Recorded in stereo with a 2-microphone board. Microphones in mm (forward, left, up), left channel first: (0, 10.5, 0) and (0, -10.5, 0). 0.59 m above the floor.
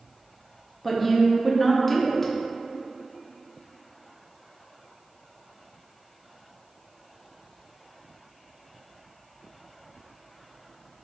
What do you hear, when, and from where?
0.8 s a woman speaking: 10° left (ahead or behind), 0.6 m